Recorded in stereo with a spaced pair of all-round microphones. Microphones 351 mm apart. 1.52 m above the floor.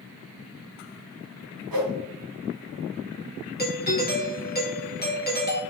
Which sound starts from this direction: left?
A doorbell, at 3.6 s.